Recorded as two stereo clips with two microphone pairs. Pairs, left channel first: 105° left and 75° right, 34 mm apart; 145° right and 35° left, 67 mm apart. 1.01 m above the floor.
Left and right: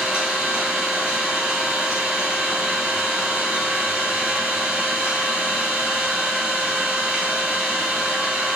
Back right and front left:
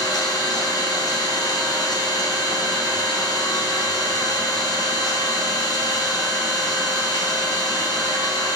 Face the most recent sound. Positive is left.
turn(degrees=-115)